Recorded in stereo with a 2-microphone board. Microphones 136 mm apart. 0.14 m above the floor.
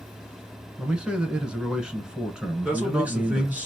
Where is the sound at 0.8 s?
5° right (ahead or behind), 1.1 m.